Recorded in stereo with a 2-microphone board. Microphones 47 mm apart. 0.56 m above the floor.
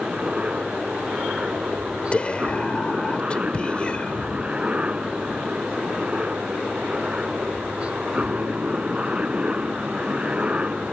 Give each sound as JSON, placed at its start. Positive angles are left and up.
{"t": 0.0, "sound": "a helicopter", "side_deg": -25}
{"t": 2.1, "sound": "whispering", "side_deg": 25}